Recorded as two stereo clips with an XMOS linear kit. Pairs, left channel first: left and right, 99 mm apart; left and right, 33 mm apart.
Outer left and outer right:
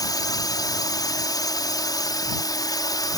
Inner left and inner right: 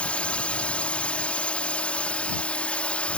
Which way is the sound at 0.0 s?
40° left (ahead or behind).